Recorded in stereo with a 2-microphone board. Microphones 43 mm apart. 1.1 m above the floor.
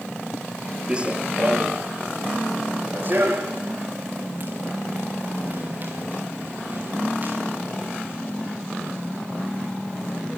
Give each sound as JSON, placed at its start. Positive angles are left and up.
{"t": 0.9, "sound": "running footsteps", "side_deg": -20, "distance_m": 1.1}